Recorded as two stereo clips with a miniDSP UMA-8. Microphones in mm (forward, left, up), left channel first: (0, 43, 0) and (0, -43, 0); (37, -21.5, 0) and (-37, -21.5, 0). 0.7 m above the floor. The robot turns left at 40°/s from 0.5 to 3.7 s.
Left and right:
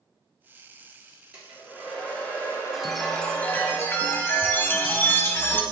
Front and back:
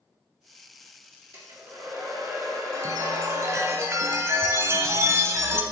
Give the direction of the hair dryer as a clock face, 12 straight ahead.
5 o'clock.